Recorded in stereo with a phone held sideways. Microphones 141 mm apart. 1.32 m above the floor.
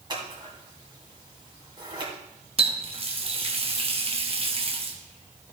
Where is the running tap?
45° right (ahead or behind), 1.3 m.